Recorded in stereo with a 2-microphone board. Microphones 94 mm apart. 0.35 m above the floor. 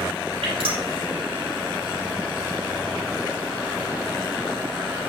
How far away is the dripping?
About 4.5 m.